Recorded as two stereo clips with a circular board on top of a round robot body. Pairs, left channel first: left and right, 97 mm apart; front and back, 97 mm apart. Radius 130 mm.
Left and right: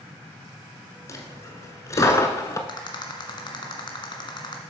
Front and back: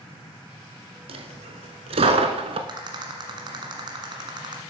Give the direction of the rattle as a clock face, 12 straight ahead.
7 o'clock.